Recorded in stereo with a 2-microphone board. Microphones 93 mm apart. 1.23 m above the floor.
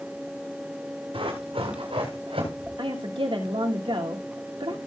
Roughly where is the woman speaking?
Right.